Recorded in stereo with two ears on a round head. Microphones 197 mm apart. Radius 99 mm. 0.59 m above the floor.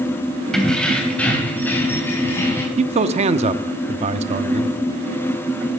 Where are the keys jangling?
Centre (ahead or behind), 2.5 m; by 2.7 s 10° left (ahead or behind), 4 m.